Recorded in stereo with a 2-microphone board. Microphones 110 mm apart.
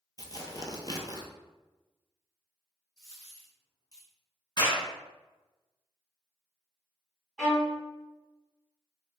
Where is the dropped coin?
35° left (ahead or behind), 1.7 m.